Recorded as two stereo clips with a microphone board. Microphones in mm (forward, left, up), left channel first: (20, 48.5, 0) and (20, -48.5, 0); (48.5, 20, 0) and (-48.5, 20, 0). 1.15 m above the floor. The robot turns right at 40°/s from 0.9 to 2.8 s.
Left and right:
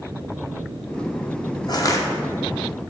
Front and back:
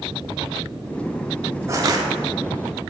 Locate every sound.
1.7 s crushing: 125° left, 1.0 m; by 2.0 s 140° left, 1.0 m